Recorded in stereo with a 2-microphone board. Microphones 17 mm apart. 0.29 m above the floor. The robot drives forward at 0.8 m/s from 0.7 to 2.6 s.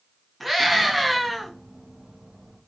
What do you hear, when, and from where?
0.4 s a scream: centre (ahead or behind), 3.5 m